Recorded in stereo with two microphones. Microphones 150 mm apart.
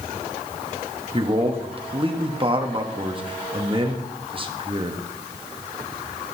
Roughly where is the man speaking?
Right.